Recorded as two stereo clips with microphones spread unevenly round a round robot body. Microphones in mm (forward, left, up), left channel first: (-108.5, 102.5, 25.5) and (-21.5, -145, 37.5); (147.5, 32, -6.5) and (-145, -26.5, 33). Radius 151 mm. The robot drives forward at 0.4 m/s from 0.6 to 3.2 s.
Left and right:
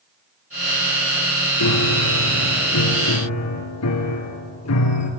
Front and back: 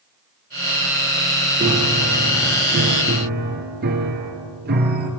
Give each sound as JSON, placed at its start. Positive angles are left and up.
{"t": 1.6, "sound": "a piano", "azimuth_deg": 120, "distance_m": 2.0}